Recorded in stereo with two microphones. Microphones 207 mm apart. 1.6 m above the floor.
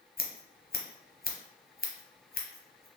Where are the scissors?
50° left (ahead or behind), 0.8 m.